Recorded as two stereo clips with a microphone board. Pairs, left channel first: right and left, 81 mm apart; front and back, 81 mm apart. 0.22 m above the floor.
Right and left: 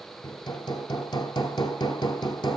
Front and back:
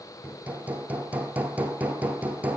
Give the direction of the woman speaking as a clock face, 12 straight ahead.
I don't hear a woman speaking.